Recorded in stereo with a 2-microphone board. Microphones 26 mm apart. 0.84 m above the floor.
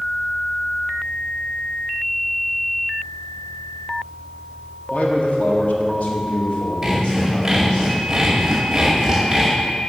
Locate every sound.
4.9 s a man speaking: 55° left (ahead or behind), 1.4 m; by 7.8 s 45° left (ahead or behind), 2.5 m
6.8 s sawing: 20° right (ahead or behind), 2 m